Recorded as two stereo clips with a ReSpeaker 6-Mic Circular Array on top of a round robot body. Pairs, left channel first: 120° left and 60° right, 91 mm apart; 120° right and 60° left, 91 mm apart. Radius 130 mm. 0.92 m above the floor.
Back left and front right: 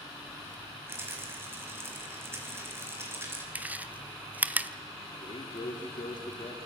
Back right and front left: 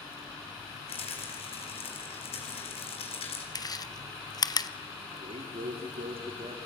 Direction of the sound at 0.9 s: 125° right.